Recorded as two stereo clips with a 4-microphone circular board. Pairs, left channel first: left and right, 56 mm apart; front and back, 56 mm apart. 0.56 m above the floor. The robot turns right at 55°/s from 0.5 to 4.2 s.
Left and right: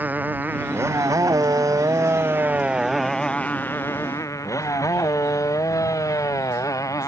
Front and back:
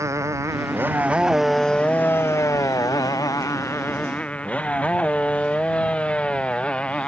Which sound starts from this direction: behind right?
A motorcycle, at 0.0 s.